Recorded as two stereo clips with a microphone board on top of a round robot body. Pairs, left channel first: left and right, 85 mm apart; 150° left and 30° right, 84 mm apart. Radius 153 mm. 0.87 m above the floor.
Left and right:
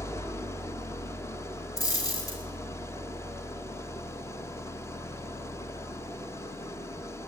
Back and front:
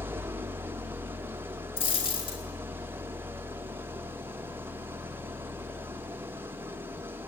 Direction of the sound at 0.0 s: 35° left.